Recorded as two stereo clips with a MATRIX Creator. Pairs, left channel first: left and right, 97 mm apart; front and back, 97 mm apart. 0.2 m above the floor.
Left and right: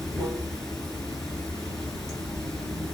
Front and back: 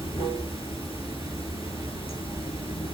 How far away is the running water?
About 2.5 m.